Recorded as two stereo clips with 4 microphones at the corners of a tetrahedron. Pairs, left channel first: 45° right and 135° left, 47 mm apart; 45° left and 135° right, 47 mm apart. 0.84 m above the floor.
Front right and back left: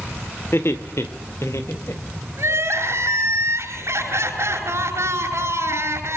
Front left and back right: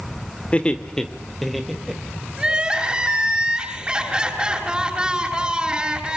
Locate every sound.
0.5 s laughter: 20° right, 2 m; by 2.0 s 55° right, 3.5 m
2.4 s crying: 150° left, 8 m